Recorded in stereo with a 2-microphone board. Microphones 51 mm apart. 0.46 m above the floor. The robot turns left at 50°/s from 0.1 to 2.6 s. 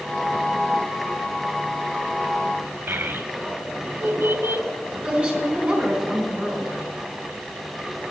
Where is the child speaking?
50° right (ahead or behind), 1.3 m.